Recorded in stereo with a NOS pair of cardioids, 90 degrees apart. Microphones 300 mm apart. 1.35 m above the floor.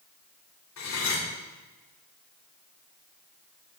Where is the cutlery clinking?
65° left, 3.5 m.